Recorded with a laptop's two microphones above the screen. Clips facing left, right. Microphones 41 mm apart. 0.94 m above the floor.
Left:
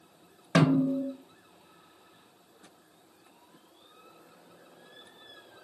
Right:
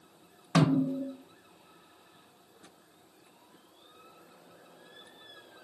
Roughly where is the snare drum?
Left.